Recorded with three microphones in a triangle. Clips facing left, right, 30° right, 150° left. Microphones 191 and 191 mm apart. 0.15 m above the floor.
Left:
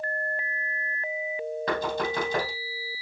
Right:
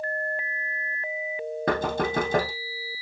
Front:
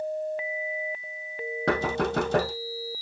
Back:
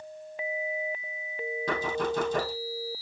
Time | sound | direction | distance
1.7 | knocking | 50° right | 3.5 m